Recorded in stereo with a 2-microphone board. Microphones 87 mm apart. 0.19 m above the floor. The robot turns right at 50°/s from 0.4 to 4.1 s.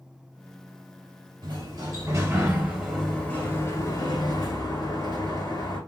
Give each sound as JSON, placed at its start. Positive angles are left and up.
{"t": 1.4, "sound": "a sliding door", "azimuth_deg": -75, "distance_m": 3.0}